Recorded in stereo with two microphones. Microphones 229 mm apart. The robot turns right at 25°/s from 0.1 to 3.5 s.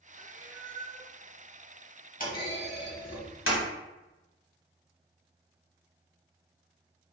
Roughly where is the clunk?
Left.